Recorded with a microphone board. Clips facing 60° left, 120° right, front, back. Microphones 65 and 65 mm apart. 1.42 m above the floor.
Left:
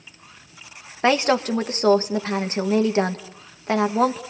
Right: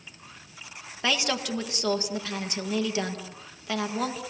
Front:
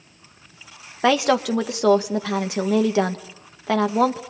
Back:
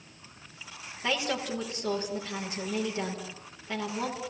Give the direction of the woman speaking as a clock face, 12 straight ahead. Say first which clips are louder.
Left 9 dB, front 13 dB; 12 o'clock.